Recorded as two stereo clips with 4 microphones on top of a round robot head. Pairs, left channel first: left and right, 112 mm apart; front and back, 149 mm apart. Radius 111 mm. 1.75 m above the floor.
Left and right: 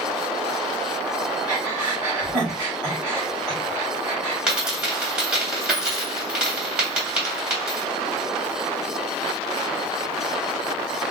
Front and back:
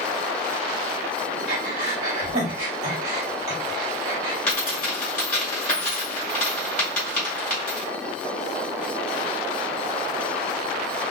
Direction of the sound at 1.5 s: Straight behind.